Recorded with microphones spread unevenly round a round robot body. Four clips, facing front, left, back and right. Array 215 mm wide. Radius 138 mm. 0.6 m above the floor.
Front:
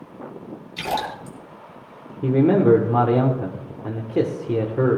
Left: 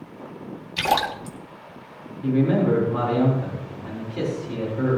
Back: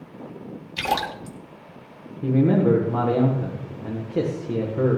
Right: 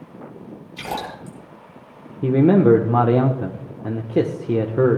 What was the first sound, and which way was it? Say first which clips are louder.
A splash: left 7 dB, back 1 dB; 100° left.